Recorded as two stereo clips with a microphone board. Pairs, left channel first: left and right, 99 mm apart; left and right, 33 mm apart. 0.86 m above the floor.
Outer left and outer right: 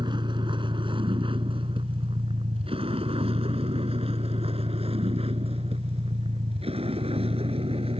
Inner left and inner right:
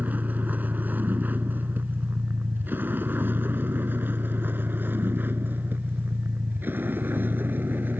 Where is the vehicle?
55° right (ahead or behind); by 8.0 s 80° right.